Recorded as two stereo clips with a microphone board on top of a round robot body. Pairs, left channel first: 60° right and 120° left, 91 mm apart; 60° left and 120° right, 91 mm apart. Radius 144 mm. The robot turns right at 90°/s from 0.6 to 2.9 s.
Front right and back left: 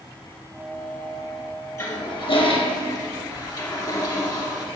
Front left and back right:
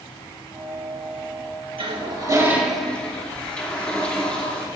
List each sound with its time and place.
1.8 s a toilet flushing: 115° right, 2 m; by 4.7 s 15° right, 2 m